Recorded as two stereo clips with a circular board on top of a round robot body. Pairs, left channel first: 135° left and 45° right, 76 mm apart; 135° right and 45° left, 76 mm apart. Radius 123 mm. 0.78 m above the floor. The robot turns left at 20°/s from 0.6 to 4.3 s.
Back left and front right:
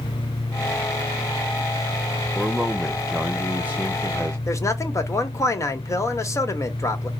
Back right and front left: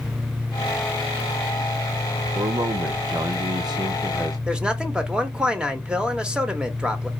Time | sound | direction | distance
2.4 | a man speaking | 45° left | 0.6 m
4.5 | a man speaking | 120° left | 1.2 m